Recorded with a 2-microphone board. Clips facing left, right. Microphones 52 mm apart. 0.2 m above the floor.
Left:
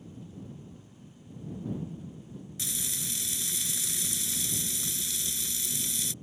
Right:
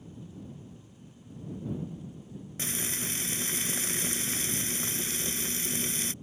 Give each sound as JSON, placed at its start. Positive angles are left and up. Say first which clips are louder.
{"t": 2.6, "sound": "frying", "louder": "right 5 dB", "side_deg": -40}